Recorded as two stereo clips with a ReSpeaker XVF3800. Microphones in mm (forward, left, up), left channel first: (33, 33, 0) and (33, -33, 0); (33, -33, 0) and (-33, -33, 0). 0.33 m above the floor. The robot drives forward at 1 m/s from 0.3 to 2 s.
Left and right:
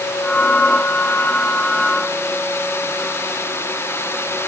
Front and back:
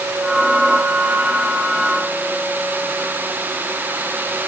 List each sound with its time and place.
Only background noise.